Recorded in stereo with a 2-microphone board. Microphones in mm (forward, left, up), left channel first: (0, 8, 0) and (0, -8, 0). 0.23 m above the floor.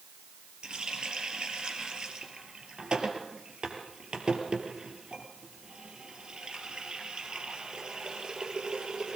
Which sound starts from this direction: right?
A running tap, at 0.6 s.